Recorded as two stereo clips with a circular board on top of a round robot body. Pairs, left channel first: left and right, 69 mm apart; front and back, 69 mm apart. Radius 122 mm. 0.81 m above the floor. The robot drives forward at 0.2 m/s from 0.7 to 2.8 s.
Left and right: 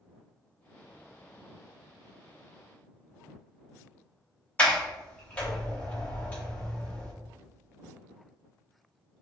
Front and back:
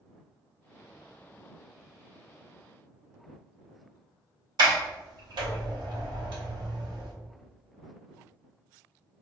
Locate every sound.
4.6 s a sliding door: 165° left, 0.8 m